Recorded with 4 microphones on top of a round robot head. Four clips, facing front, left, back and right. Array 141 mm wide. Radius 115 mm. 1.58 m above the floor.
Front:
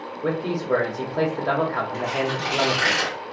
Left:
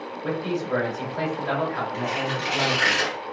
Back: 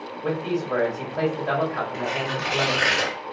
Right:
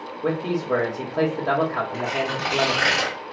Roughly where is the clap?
No clap in this recording.